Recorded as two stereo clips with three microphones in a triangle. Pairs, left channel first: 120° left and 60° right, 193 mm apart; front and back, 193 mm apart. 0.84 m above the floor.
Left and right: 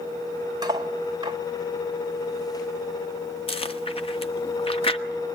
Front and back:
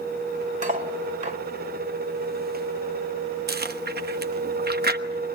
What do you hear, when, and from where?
0.6 s cutlery clinking: 130° right, 2 m
3.5 s chewing: 175° left, 1.1 m